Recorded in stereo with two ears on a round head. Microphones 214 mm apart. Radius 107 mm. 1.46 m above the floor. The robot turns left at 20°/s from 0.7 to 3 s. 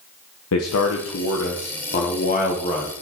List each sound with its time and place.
0.5 s a man speaking: 70° left, 0.9 m; by 2.9 s 25° left, 0.9 m